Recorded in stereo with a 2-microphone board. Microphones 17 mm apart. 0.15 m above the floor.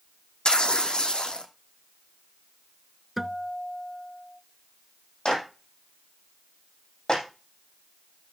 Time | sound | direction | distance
0.5 | tearing paper | 70° left (ahead or behind) | 1.6 m
3.2 | a guitar | 10° right (ahead or behind) | 0.6 m
5.2 | a clap | 50° left (ahead or behind) | 6.5 m